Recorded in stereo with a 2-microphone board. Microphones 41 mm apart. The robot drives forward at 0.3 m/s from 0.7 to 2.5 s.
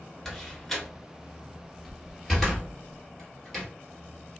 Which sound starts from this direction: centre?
A door slam, at 0.2 s.